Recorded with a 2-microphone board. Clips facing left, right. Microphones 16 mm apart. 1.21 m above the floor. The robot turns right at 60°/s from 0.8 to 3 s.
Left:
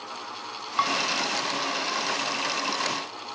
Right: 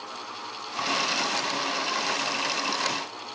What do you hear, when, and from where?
0.8 s dishes clattering: 40° left (ahead or behind), 2 m; by 0.9 s 30° left (ahead or behind), 2 m